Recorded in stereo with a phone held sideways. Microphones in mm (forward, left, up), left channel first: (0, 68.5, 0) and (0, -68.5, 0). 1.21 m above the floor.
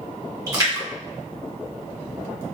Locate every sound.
0.5 s a splash: 30° right (ahead or behind), 2 m